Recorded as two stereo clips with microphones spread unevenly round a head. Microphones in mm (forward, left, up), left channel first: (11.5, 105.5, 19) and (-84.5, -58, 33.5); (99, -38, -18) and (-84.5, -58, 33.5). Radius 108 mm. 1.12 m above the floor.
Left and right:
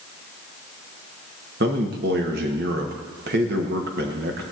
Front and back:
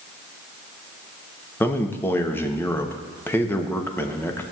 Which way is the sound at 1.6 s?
75° right.